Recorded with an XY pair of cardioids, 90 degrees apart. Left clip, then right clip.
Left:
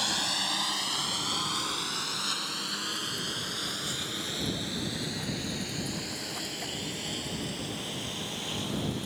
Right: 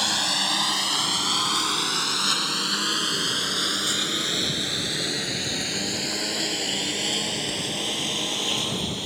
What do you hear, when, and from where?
0.0 s a lawn mower: 45° right; by 9.1 s 75° right